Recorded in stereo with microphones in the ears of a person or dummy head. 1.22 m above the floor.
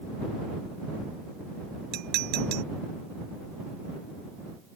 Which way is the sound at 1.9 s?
65° right (ahead or behind).